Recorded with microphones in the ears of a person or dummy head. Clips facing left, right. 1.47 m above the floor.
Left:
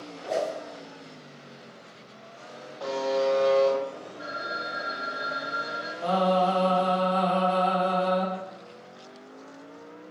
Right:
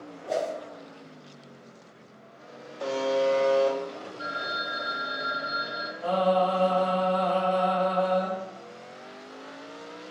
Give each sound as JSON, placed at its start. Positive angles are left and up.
{"t": 0.3, "sound": "a whoosh", "side_deg": -5, "distance_m": 1.1}
{"t": 2.8, "sound": "a buzzer", "side_deg": -35, "distance_m": 0.6}
{"t": 4.2, "sound": "a phone ringing", "side_deg": -45, "distance_m": 1.1}
{"t": 6.0, "sound": "singing", "side_deg": 75, "distance_m": 1.3}